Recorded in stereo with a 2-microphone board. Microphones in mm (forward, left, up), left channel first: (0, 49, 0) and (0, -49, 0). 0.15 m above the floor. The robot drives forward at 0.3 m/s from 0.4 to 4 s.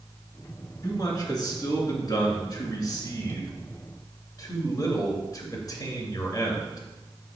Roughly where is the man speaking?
Left.